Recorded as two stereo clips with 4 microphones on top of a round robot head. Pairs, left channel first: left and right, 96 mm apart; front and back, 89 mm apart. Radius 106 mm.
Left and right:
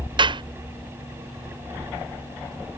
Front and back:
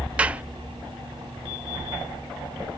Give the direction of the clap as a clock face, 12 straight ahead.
4 o'clock.